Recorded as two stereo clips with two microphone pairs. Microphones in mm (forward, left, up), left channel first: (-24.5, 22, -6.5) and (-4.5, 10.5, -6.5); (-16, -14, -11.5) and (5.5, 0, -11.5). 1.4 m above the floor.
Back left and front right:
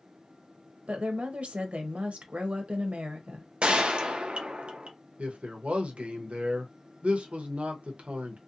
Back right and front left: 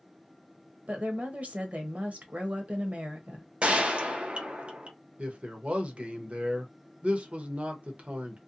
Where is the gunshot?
5° right, 0.5 m.